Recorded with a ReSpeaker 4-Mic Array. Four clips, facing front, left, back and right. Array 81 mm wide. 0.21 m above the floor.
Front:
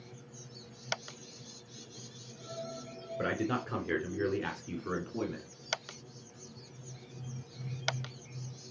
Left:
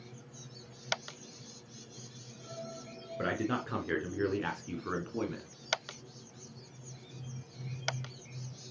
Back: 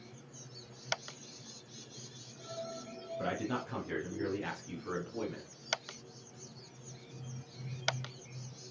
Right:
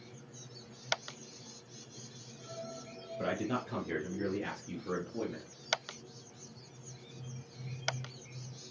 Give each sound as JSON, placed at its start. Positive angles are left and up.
{"t": 3.2, "sound": "a man speaking", "azimuth_deg": 50, "distance_m": 2.5}